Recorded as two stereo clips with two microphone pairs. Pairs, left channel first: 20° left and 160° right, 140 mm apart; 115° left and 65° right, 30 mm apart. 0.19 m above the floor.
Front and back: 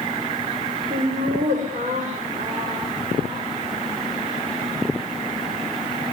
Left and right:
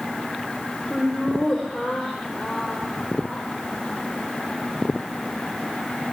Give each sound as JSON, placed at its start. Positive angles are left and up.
{"t": 0.9, "sound": "laughter", "azimuth_deg": -175, "distance_m": 8.5}